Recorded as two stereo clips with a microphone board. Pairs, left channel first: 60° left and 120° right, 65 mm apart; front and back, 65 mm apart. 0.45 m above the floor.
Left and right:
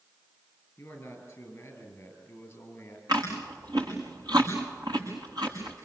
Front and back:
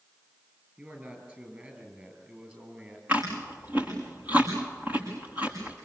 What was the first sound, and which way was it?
A man speaking, 115° left.